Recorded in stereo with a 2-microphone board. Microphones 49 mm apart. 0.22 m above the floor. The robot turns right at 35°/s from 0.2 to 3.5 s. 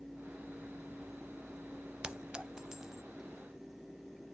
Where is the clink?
20° right (ahead or behind), 0.6 m; by 3.0 s 10° right (ahead or behind), 0.6 m.